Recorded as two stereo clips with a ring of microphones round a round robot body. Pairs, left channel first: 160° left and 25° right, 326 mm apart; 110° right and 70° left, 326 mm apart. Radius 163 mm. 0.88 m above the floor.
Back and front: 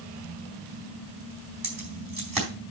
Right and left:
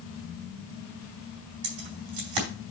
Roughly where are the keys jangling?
Ahead left.